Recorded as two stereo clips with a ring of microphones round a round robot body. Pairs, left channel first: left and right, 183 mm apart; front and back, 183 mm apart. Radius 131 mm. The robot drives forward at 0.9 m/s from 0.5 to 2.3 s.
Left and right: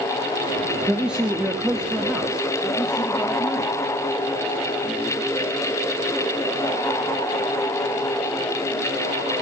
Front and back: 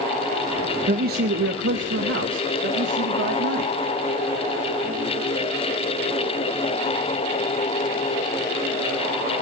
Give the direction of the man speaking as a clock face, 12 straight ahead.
6 o'clock.